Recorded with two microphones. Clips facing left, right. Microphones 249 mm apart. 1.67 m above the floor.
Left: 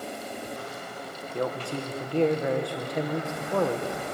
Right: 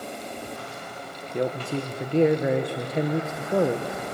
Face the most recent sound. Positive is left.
turn(degrees=-20)  # may be behind; listen again after turning